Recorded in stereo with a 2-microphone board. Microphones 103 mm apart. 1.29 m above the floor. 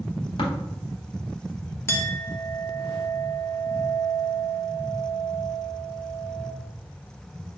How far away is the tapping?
About 1.8 m.